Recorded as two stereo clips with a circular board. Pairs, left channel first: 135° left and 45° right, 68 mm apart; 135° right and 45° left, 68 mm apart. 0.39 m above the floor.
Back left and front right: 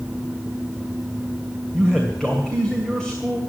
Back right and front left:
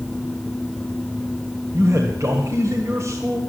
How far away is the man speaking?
About 2 m.